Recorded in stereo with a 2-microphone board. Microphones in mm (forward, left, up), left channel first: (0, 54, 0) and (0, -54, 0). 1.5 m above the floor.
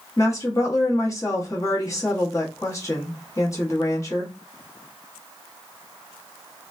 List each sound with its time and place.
0.2 s a woman speaking: 30° left (ahead or behind), 1.3 m